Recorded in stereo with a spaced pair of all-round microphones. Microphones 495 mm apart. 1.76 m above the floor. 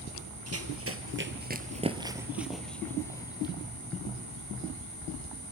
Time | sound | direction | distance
0.5 | running footsteps | 30° right (ahead or behind) | 2 m